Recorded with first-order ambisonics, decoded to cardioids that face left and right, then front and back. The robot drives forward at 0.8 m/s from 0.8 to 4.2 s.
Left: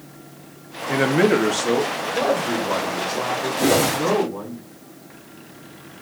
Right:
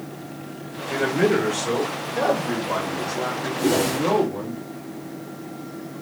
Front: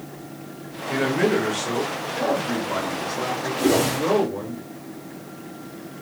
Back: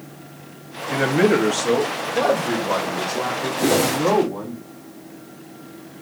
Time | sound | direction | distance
0.9 | a man speaking | 100° left | 0.8 m
3.6 | a whoosh | 120° left | 0.7 m